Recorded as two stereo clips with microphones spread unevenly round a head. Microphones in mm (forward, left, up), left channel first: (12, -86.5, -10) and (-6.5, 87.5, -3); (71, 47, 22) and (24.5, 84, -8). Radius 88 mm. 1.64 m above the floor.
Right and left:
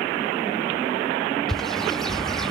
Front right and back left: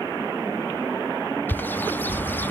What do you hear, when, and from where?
1.5 s a bird: 5° left, 0.7 m